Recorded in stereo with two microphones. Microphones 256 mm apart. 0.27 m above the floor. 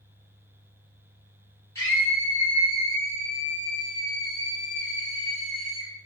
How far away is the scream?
About 1.9 m.